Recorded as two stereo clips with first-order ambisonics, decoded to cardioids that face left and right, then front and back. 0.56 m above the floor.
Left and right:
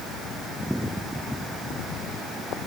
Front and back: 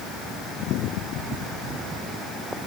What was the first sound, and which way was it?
Only background noise.